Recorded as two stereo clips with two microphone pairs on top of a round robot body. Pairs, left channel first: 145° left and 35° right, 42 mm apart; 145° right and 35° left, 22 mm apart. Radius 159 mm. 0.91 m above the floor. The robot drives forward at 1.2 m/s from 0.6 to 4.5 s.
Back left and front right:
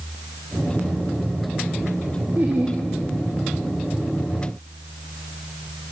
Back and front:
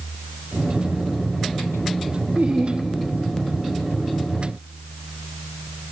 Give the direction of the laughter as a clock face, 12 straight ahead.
11 o'clock.